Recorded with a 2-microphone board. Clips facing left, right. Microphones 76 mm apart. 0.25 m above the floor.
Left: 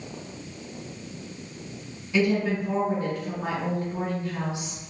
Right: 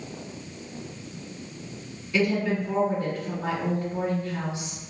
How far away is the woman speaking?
About 1.8 m.